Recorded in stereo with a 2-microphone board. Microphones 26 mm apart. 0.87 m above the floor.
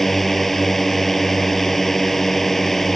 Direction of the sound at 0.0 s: 10° left (ahead or behind).